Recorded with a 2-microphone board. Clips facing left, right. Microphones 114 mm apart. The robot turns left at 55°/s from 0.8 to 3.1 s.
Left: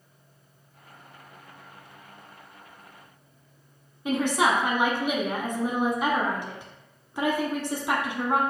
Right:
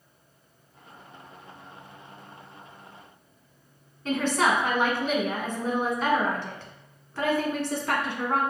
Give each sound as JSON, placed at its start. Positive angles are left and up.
{"t": 4.0, "sound": "a woman speaking", "side_deg": 15, "distance_m": 1.0}